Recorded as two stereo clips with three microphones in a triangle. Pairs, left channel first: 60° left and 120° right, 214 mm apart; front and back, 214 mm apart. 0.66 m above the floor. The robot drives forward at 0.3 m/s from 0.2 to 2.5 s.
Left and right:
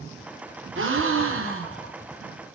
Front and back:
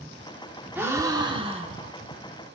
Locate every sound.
0.8 s a gasp: 100° right, 0.6 m; by 1.9 s 130° right, 0.8 m